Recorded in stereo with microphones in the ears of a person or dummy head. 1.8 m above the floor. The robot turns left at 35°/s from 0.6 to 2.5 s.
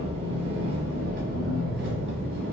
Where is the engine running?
35° right, 1.5 m; by 2.5 s 100° right, 1.5 m.